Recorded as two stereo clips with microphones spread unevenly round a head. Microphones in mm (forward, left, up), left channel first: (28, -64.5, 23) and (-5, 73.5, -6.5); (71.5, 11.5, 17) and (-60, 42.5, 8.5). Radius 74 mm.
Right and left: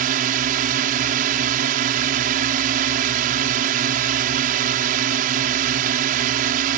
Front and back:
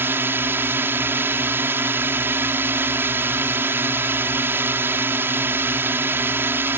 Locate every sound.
0.0 s a drone: 95° left